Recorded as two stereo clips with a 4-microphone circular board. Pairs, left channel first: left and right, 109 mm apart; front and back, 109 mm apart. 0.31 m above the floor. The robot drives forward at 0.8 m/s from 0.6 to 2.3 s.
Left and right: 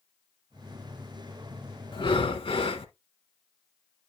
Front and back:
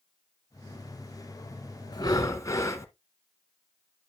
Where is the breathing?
50° left, 1.4 m; by 2.9 s 60° left, 1.2 m.